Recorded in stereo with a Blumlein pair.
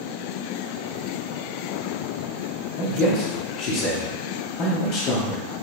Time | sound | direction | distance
2.8 | a man speaking | 35° left | 0.6 m